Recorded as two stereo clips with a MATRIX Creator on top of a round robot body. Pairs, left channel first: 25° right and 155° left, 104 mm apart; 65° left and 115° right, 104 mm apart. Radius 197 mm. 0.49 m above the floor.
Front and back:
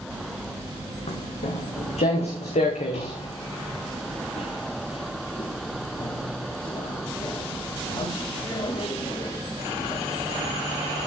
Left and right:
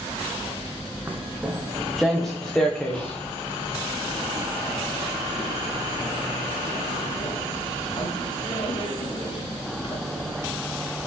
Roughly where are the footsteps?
Ahead right.